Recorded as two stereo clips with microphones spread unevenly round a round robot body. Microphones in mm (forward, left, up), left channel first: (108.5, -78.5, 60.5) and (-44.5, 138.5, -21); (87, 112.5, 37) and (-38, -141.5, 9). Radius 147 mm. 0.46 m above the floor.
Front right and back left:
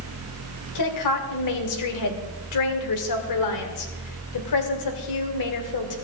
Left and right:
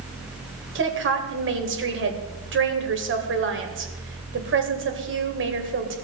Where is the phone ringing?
I don't hear a phone ringing.